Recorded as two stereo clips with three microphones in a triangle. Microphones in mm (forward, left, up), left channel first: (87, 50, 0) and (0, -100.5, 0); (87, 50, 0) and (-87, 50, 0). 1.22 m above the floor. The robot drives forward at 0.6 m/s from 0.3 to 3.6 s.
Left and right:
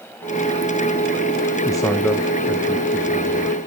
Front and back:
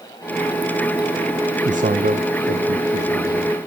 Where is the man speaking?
125° left, 0.6 m; by 3.6 s 165° left, 1.6 m.